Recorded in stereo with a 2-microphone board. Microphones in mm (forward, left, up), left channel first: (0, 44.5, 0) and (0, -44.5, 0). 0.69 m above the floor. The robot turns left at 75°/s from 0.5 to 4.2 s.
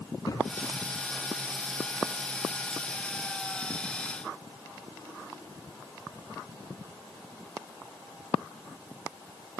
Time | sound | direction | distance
0.2 | a thud | 45° left (ahead or behind) | 2 m